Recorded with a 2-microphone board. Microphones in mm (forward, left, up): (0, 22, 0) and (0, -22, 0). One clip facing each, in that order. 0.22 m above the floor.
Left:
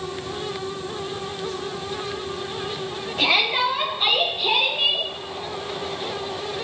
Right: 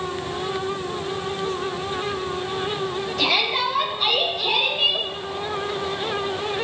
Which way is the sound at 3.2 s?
30° left (ahead or behind).